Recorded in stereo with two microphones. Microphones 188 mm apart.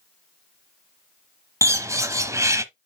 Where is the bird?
15° right (ahead or behind), 0.8 m.